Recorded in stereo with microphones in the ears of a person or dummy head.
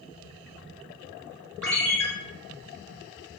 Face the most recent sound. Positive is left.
turn(degrees=5)  # may be behind; listen again after turning